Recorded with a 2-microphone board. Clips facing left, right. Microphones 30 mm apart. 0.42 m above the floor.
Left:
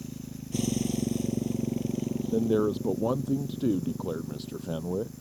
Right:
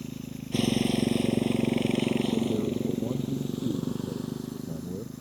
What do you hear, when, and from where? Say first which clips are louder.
0.0 s a motorcycle: right 2 dB; 30° right (ahead or behind); by 5.2 s 70° right (ahead or behind)
2.3 s a man speaking: left 2 dB; 85° left